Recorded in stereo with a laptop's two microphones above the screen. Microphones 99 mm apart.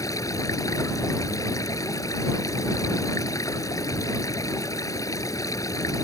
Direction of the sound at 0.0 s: 35° left (ahead or behind).